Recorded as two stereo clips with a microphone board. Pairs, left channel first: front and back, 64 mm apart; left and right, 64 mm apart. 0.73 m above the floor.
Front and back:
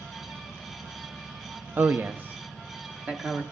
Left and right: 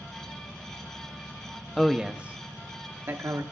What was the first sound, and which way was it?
A man speaking, 170° left.